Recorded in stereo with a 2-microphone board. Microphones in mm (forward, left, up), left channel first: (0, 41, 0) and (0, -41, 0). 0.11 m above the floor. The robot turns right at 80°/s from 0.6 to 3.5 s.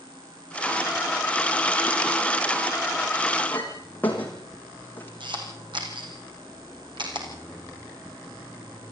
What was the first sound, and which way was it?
A clink, 25° left (ahead or behind).